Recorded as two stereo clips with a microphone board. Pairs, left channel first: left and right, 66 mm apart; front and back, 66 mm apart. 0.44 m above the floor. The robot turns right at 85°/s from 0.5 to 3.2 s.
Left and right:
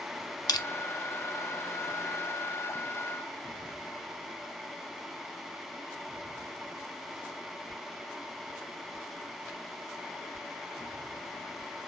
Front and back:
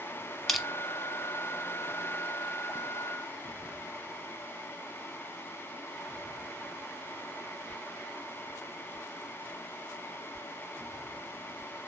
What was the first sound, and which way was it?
Crushing, 90° left.